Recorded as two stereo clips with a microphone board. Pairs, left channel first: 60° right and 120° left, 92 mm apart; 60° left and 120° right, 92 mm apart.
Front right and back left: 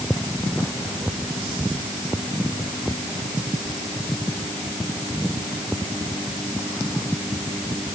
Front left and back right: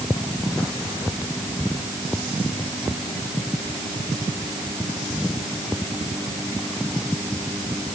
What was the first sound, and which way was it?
Only background noise.